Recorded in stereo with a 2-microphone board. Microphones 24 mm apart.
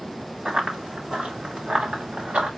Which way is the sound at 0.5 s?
35° right (ahead or behind).